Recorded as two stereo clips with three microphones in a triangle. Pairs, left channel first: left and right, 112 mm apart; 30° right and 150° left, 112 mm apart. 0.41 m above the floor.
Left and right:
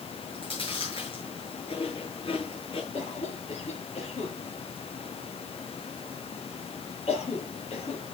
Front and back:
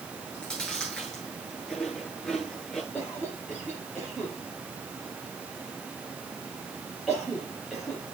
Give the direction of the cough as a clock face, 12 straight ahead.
10 o'clock.